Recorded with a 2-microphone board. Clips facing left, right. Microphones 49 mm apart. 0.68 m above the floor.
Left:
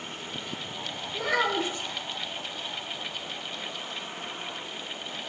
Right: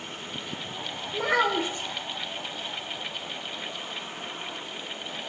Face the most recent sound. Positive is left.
turn(degrees=-40)  # may be behind; listen again after turning